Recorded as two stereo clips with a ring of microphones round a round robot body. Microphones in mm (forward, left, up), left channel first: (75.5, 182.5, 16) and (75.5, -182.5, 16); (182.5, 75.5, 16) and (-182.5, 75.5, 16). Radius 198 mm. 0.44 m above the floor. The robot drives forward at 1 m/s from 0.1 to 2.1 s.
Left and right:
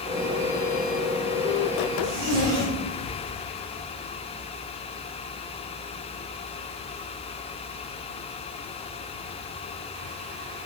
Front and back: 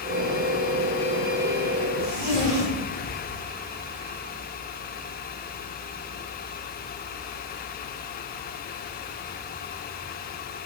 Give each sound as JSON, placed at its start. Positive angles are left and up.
{"t": 2.0, "sound": "a zipper", "azimuth_deg": -150, "distance_m": 5.0}